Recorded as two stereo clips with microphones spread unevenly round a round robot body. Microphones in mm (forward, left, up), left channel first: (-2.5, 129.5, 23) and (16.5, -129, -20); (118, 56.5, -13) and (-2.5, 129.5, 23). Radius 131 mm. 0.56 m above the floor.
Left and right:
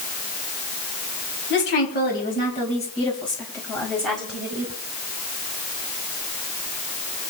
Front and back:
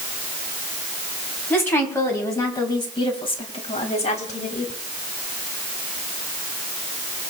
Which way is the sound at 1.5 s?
45° left.